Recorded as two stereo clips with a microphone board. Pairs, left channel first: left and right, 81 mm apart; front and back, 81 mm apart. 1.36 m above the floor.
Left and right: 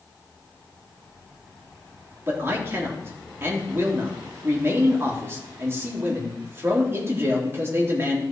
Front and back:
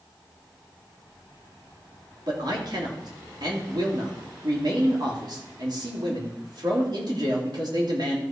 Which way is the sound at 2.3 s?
150° right.